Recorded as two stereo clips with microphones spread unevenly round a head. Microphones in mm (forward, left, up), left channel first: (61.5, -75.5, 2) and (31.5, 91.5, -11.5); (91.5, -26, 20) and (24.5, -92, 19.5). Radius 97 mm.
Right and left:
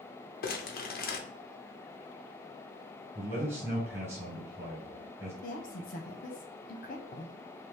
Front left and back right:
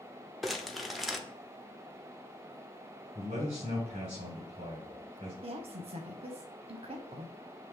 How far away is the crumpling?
About 0.8 m.